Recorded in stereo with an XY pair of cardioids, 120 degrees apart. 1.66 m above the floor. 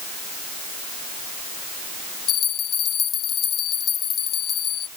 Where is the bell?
50° left.